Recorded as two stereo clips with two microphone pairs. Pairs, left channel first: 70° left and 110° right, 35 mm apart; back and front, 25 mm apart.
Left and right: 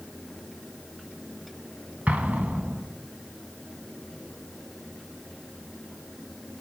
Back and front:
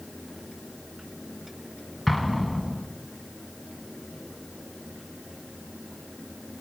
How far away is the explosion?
About 1.2 m.